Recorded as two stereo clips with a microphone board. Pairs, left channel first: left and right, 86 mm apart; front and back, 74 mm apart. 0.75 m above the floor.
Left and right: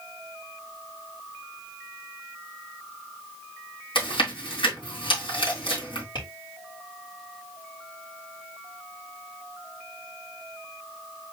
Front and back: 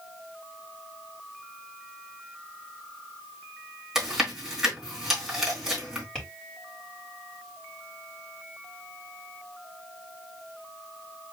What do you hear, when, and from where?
4.0 s chewing: 95° left, 3 m
6.2 s tapping: 85° left, 3 m